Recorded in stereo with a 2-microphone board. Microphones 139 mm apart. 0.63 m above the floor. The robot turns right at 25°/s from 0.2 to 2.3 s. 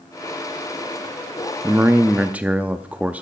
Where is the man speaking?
15° right (ahead or behind), 0.7 m; by 3.2 s 10° right (ahead or behind), 0.7 m.